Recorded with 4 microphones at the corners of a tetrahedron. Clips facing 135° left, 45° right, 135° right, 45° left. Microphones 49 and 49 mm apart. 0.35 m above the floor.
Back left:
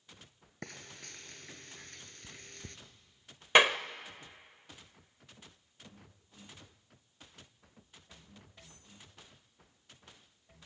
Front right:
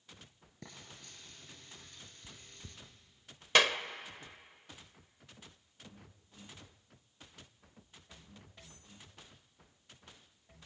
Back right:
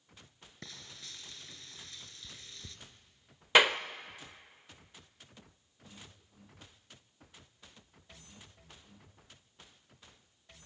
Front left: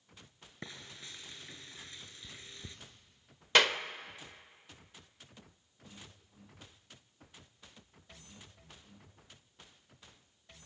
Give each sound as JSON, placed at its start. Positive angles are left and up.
{"t": 0.6, "sound": "frying", "azimuth_deg": 115, "distance_m": 1.9}
{"t": 3.5, "sound": "a clap", "azimuth_deg": 170, "distance_m": 0.7}